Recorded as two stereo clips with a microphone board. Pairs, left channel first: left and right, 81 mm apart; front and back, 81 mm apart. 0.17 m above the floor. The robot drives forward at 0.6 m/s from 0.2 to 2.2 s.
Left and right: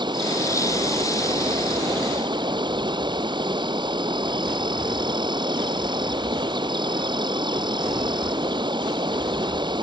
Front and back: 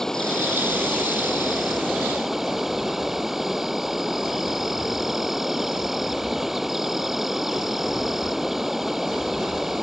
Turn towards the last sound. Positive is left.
turn(degrees=-95)